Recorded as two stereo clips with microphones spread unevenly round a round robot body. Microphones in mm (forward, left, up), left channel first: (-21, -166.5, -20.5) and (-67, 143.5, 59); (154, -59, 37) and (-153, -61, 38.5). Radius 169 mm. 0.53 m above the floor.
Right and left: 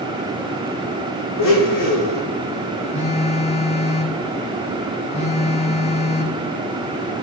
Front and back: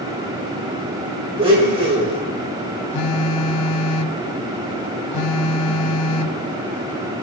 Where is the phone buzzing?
5° right, 1.0 m.